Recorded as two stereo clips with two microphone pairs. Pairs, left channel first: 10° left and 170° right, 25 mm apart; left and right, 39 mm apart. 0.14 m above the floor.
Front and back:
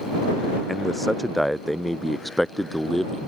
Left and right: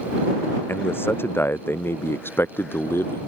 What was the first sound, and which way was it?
A man speaking, 90° left.